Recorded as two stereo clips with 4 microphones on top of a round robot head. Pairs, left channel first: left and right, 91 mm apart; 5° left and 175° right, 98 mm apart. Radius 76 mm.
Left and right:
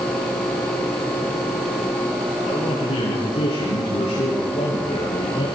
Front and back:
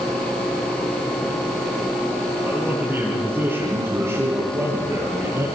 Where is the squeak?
No squeak in this recording.